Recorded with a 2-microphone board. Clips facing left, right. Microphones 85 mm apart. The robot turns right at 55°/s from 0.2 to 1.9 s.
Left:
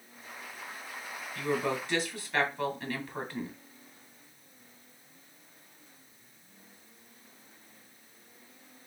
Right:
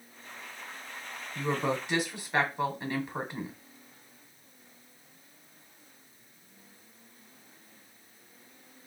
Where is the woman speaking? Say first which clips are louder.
Right 1 dB; 20° right (ahead or behind), 1.4 m; by 3.6 s 15° right (ahead or behind), 1.4 m.